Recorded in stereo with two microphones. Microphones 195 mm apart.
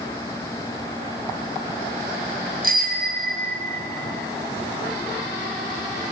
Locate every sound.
2.6 s a bicycle bell: 55° right (ahead or behind), 4 m; by 3.9 s 50° right (ahead or behind), 5 m